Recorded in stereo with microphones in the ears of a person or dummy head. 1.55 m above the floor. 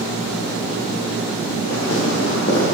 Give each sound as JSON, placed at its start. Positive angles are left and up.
{"t": 1.7, "sound": "footsteps", "side_deg": 55, "distance_m": 3.0}